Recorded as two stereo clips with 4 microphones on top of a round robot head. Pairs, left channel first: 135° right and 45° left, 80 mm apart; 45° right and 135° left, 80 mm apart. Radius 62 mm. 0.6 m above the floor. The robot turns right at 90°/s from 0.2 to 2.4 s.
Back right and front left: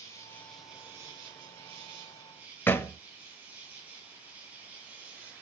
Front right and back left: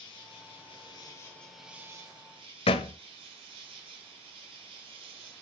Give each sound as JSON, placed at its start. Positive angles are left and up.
{"t": 0.0, "sound": "an insect", "azimuth_deg": -80, "distance_m": 3.0}
{"t": 2.7, "sound": "a thud", "azimuth_deg": -65, "distance_m": 0.8}